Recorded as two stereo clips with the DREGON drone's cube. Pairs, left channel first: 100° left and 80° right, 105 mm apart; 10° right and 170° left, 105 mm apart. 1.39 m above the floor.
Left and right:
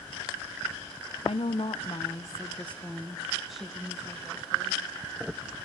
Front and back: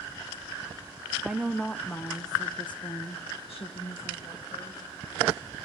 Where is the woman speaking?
90° left, 1.0 m; by 4.8 s 5° right, 3 m.